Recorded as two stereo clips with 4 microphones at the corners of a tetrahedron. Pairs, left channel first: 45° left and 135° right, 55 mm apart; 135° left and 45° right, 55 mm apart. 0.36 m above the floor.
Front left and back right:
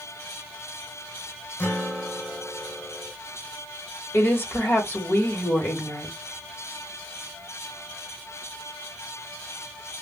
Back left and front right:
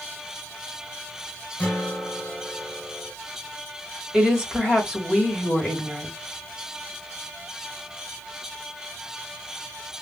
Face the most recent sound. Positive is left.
turn(degrees=30)